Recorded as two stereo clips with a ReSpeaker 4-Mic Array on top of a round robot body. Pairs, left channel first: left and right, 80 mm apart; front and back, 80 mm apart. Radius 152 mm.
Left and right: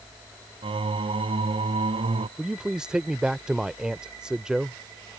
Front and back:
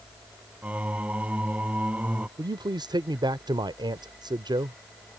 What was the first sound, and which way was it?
Singing, 105° right.